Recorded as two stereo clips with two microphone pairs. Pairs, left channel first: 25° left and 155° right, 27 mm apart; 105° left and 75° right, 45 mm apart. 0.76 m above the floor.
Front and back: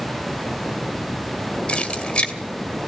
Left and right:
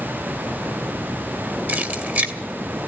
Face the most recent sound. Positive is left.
turn(degrees=-30)